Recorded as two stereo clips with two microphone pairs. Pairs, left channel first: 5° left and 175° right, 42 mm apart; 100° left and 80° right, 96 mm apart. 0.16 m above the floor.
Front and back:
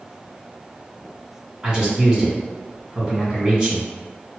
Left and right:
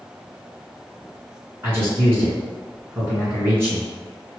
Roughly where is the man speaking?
Behind right.